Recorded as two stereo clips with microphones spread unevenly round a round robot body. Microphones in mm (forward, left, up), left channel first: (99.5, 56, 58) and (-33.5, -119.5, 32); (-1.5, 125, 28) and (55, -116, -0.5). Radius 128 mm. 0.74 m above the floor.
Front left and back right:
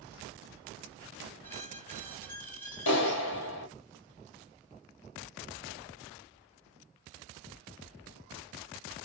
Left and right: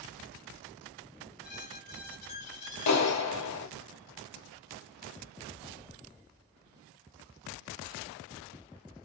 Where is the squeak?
135° left, 1.5 m.